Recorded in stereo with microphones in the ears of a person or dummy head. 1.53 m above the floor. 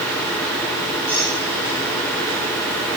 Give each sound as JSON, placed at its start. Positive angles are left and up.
{"t": 1.1, "sound": "a squeak", "side_deg": 10, "distance_m": 8.0}